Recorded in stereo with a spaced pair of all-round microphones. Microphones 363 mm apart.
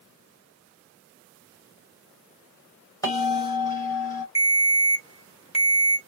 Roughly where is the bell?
Centre.